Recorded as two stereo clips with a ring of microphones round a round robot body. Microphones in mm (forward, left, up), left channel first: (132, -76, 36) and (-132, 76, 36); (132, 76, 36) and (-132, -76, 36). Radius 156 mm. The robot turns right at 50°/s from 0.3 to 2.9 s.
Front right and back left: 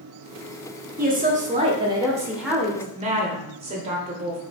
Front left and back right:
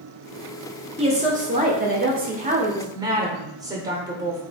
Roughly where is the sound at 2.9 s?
Behind left.